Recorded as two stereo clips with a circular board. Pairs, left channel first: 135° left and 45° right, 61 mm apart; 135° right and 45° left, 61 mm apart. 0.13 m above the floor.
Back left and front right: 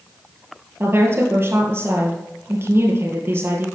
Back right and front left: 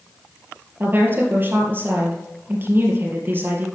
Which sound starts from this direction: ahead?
A woman speaking, at 0.8 s.